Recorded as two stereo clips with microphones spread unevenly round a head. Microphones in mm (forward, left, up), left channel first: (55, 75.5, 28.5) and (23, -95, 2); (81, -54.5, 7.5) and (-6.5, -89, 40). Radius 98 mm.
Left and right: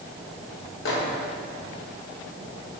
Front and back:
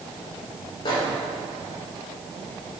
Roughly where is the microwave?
Ahead left.